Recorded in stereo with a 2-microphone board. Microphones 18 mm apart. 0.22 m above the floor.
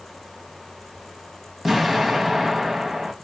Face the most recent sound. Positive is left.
turn(degrees=-20)  # may be behind; listen again after turning